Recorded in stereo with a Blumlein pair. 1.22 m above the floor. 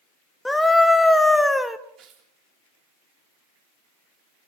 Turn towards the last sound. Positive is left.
turn(degrees=-30)